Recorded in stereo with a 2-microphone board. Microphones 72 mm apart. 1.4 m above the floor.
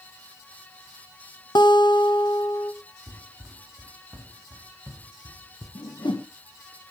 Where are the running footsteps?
40° right (ahead or behind), 5.5 m; by 5.7 s centre (ahead or behind), 5 m.